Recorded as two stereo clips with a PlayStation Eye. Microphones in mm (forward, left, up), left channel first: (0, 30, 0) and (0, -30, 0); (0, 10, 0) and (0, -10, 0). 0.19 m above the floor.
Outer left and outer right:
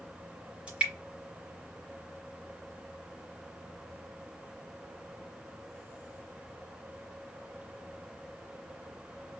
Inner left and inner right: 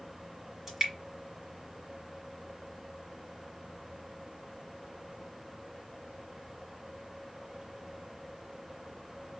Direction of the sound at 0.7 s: 20° right (ahead or behind).